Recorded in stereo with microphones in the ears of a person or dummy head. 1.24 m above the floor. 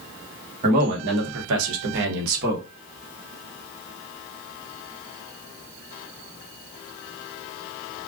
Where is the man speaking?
45° right (ahead or behind), 1.2 m.